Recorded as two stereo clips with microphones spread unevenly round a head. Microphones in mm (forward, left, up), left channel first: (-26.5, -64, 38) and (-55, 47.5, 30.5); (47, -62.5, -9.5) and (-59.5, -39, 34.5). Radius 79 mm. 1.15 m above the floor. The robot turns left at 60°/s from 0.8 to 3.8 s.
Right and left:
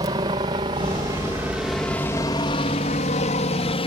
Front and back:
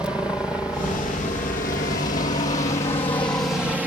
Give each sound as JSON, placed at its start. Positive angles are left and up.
{"t": 0.0, "sound": "a helicopter", "azimuth_deg": 65}